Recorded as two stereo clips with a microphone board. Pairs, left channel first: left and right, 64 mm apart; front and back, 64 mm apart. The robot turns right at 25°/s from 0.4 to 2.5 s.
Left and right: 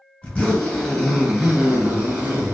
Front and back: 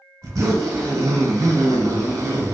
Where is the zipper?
160° left, 1.0 m; by 2.5 s 145° right, 1.0 m.